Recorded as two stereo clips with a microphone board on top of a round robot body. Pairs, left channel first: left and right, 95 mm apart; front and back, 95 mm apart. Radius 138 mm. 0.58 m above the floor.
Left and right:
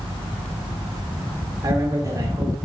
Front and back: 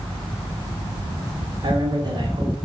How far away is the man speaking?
About 2 m.